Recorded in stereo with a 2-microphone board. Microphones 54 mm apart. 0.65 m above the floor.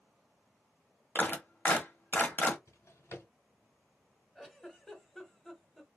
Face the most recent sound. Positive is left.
turn(degrees=5)  # may be behind; listen again after turning